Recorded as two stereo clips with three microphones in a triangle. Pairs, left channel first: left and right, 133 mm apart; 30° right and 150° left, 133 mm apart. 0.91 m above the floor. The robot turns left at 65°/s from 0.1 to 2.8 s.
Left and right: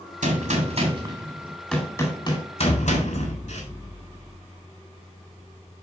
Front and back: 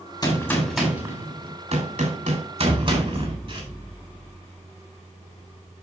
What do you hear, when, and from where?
0.2 s a gunshot: 90° right, 3.5 m; by 3.6 s 100° left, 3.5 m
2.6 s an explosion: 50° left, 0.6 m; by 4.6 s 40° left, 0.6 m